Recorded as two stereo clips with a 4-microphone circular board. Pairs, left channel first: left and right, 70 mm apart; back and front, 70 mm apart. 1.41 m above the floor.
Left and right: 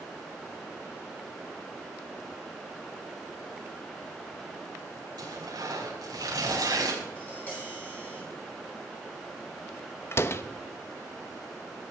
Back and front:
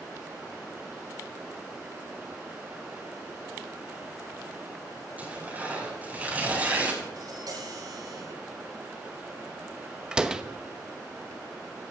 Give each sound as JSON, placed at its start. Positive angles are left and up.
{"t": 5.2, "sound": "tearing paper", "azimuth_deg": -70, "distance_m": 4.5}
{"t": 7.2, "sound": "tapping", "azimuth_deg": 25, "distance_m": 9.5}
{"t": 10.1, "sound": "a door slam", "azimuth_deg": 70, "distance_m": 0.8}